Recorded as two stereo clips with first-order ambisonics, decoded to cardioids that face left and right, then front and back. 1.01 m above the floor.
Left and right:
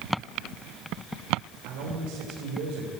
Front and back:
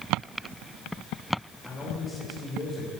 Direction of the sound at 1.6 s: 75° right.